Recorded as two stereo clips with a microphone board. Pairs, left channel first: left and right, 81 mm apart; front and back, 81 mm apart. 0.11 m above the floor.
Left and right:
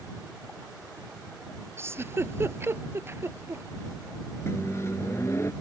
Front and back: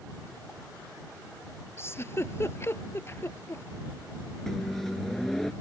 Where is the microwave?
85° left.